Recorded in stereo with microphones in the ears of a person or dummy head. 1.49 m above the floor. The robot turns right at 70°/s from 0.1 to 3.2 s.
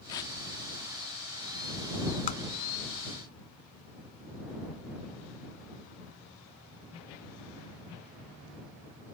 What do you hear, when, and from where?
0.1 s tearing paper: 15° left (ahead or behind); by 0.3 s 25° left (ahead or behind)
2.3 s tapping: 40° left (ahead or behind); by 2.5 s 30° left (ahead or behind)